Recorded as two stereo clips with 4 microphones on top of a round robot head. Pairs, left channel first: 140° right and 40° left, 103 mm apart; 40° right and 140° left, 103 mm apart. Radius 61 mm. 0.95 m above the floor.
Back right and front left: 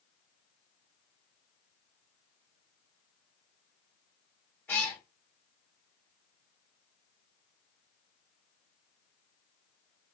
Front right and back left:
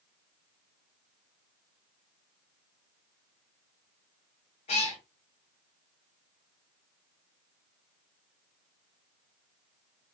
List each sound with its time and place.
4.7 s a cat meowing: 70° right, 1.6 m